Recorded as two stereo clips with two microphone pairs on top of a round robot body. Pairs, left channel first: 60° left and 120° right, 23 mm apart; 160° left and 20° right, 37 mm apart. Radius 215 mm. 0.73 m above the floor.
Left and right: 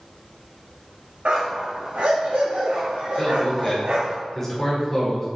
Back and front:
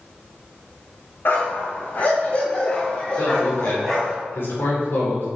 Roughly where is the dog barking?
Behind.